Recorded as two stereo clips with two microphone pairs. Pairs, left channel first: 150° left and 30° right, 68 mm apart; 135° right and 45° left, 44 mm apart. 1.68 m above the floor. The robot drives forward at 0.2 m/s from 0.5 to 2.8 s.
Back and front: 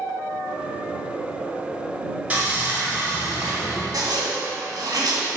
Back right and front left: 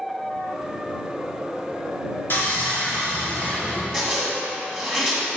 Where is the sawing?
100° right, 2.5 m.